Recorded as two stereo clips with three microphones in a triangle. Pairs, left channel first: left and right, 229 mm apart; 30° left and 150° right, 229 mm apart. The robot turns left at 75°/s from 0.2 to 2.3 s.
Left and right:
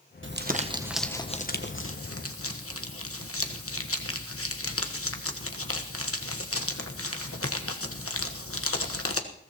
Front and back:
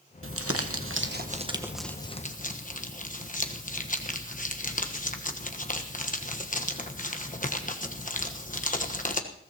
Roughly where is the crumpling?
Behind right.